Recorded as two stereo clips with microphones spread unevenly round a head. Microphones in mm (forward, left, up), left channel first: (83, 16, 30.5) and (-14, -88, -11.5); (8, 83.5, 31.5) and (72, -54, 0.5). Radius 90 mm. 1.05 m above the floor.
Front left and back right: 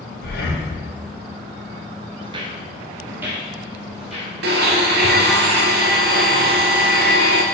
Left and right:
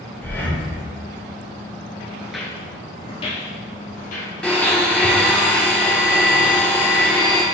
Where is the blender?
160° right, 0.9 m.